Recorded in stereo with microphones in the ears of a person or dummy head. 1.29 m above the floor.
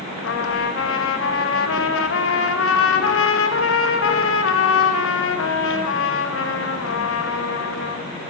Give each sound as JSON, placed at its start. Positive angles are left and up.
{"t": 0.2, "sound": "a trumpet", "side_deg": 70, "distance_m": 0.9}